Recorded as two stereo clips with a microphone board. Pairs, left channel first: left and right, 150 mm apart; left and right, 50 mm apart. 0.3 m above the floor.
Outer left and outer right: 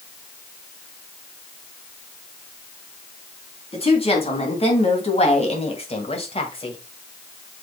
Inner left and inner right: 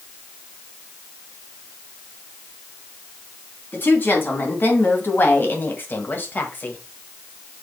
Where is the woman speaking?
40° left (ahead or behind), 3 m; by 6.8 s 35° left (ahead or behind), 1.6 m.